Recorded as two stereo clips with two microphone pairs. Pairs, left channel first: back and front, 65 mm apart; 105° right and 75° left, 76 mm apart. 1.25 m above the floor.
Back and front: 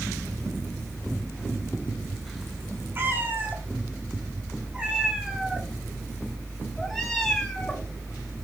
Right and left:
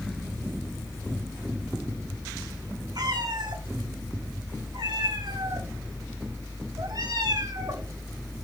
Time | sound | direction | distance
3.0 | a cat meowing | 50° left | 3.5 m